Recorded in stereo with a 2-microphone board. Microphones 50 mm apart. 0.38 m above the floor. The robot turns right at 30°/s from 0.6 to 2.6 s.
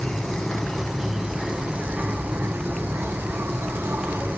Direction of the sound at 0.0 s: 175° left.